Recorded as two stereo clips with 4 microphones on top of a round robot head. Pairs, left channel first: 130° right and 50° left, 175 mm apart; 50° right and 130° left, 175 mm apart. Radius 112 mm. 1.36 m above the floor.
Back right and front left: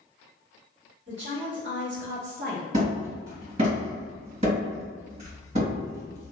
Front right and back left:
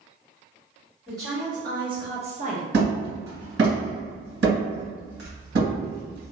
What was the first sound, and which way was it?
A woman speaking, 55° left.